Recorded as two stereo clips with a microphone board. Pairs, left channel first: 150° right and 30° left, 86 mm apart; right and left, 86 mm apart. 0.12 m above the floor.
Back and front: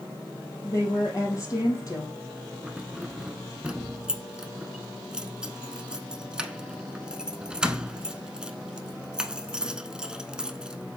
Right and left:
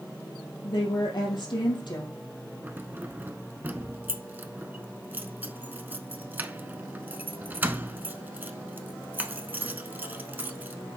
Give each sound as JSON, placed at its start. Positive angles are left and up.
{"t": 0.6, "sound": "a woman speaking", "azimuth_deg": -105, "distance_m": 3.5}
{"t": 2.6, "sound": "keys jangling", "azimuth_deg": 90, "distance_m": 0.7}